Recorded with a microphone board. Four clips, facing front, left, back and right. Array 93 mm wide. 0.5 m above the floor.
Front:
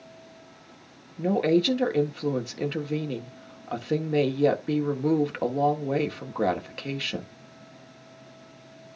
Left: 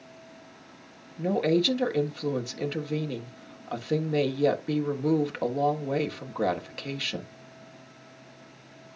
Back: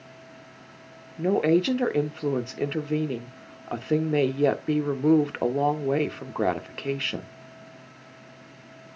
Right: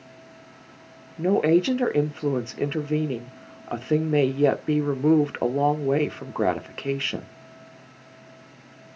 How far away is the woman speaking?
About 1.4 m.